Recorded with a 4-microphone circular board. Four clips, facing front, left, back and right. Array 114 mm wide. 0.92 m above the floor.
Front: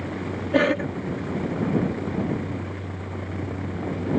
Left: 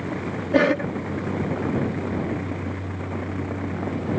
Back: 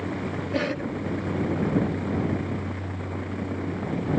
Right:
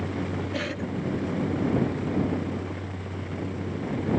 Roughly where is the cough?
Ahead left.